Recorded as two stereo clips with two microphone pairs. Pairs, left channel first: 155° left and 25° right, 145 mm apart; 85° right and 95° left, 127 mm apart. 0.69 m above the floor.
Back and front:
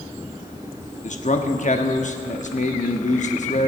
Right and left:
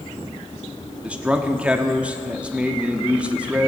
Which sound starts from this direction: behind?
A man speaking, at 1.0 s.